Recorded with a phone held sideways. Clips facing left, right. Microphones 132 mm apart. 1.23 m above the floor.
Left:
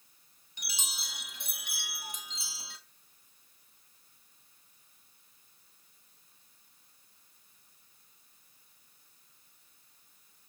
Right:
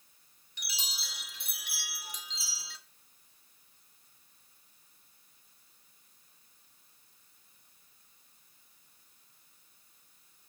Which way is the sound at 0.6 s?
50° left (ahead or behind).